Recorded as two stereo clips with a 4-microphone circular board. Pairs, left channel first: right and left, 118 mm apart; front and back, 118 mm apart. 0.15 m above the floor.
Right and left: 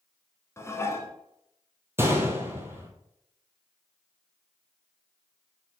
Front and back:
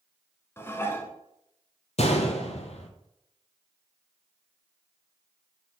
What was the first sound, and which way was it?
Dishes clattering, 50° right.